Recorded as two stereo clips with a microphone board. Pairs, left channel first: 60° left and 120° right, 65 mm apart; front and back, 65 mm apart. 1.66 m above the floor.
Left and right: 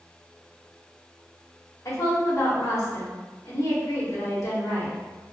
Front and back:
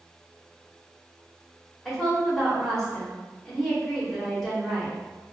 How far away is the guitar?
No guitar in this recording.